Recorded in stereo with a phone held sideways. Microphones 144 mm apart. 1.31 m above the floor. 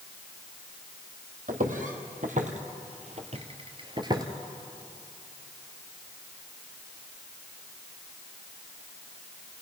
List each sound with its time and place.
1.5 s footsteps: 65° right (ahead or behind), 3 m; by 4.2 s 25° right (ahead or behind), 1.6 m